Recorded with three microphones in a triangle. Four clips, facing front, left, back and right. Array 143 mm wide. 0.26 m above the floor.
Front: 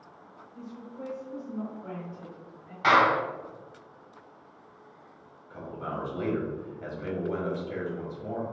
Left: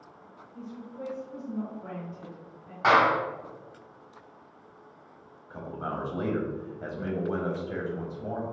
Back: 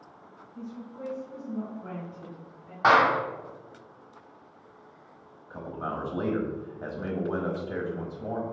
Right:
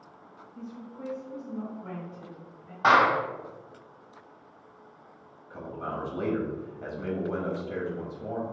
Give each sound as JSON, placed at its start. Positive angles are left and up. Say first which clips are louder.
{"t": 0.6, "sound": "a woman speaking", "louder": "left 1 dB, back 2 dB", "azimuth_deg": 80, "distance_m": 1.7}
{"t": 2.8, "sound": "a clap", "louder": "right 1 dB, back 1 dB", "azimuth_deg": -165, "distance_m": 1.2}
{"t": 5.5, "sound": "a man speaking", "louder": "left 1 dB, back 2 dB", "azimuth_deg": 155, "distance_m": 1.1}